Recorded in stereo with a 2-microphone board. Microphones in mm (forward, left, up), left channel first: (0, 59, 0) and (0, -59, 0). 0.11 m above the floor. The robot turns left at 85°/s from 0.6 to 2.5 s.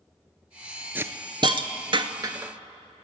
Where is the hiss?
15° right (ahead or behind), 0.6 m; by 2.5 s 20° right (ahead or behind), 0.6 m.